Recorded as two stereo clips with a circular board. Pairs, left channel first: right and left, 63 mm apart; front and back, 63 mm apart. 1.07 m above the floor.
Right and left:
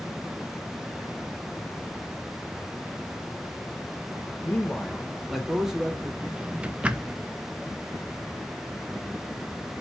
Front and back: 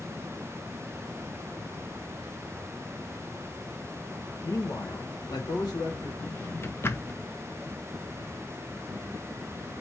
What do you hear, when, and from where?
4.4 s a man speaking: 40° right, 0.6 m; by 6.1 s 15° left, 1.9 m
6.2 s a drawer: 25° left, 0.5 m